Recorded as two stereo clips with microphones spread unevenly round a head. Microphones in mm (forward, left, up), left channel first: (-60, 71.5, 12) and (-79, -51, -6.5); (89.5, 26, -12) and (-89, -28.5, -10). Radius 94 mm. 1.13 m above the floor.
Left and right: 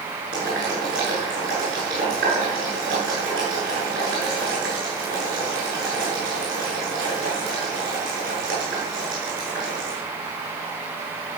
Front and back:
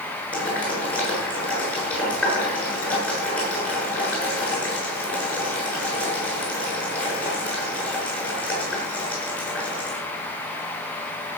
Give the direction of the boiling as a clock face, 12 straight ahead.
2 o'clock.